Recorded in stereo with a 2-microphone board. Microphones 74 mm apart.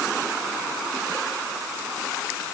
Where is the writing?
I don't hear writing.